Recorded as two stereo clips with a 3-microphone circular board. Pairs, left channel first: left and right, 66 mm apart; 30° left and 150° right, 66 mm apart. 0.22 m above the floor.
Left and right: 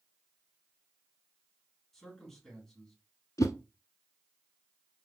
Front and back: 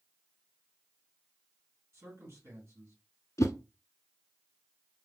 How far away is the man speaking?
About 2.5 m.